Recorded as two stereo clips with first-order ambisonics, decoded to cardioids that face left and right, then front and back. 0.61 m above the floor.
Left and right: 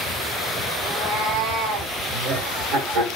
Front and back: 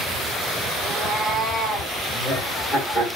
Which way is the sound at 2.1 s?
70° right.